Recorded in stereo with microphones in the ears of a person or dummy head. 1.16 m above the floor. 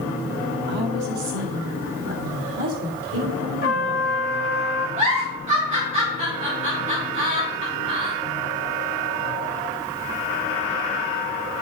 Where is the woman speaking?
60° right (ahead or behind), 1.3 m; by 4.1 s 85° right, 3 m.